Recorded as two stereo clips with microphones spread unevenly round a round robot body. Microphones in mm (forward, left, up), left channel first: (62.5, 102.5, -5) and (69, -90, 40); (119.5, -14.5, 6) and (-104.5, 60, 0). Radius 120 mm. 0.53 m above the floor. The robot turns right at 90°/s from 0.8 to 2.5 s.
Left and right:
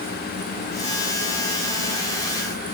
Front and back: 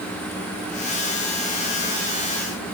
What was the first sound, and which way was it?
Only background noise.